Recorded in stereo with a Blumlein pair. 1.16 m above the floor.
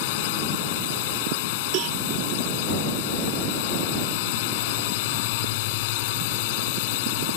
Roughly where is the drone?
Ahead left.